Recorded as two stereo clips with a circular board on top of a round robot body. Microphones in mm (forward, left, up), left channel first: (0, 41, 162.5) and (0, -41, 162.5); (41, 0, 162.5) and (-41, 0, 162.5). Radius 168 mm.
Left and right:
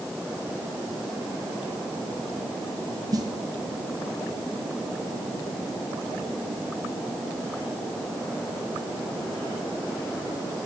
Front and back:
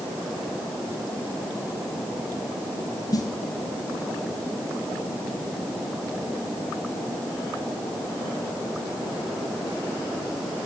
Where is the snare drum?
45° right, 1.2 m.